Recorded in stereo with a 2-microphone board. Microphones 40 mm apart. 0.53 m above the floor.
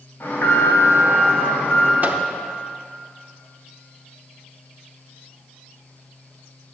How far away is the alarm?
About 3 m.